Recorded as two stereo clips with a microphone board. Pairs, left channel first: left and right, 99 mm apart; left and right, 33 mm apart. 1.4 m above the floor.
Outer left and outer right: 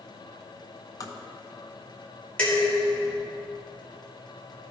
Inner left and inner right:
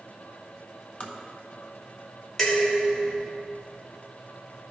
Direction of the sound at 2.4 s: 15° left (ahead or behind).